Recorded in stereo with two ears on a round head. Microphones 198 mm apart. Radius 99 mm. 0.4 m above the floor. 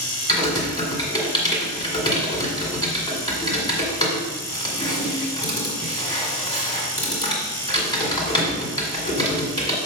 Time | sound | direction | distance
0.3 | typing on a keyboard | 20° left (ahead or behind) | 1.9 m